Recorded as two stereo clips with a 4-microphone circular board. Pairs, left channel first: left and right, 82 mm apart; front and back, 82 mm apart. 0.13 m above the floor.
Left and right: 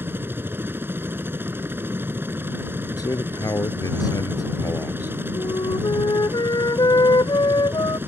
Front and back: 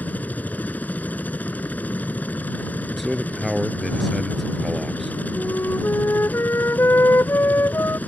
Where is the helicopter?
55° right.